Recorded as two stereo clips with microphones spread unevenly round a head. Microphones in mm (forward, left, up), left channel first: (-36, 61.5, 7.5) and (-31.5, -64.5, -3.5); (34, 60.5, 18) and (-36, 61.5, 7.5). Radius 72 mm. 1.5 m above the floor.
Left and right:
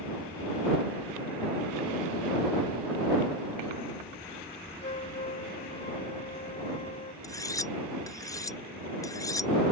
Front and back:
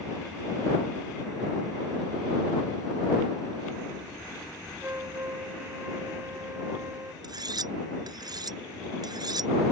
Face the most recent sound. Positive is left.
turn(degrees=155)